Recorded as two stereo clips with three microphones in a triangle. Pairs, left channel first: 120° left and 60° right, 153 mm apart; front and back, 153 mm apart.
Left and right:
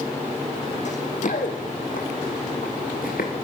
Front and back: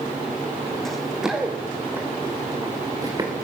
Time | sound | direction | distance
0.8 | running footsteps | 90° left | 3.5 m